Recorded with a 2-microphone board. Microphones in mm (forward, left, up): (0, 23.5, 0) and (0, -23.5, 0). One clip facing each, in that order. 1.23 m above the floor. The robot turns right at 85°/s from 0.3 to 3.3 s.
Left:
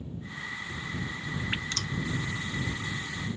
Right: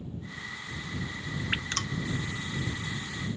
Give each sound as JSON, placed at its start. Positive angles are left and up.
{"t": 1.5, "sound": "dripping", "side_deg": -15}